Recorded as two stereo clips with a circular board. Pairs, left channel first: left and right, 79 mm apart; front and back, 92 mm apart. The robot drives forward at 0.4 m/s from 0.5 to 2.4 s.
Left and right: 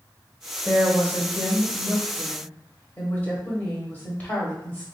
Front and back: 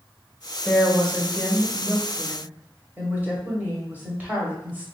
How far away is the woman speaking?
About 1.2 m.